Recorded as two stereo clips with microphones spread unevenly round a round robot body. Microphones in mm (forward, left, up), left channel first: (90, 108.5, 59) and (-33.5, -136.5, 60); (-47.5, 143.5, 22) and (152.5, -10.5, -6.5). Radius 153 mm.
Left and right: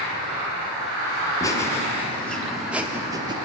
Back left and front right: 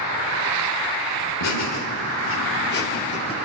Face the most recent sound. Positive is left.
turn(degrees=-160)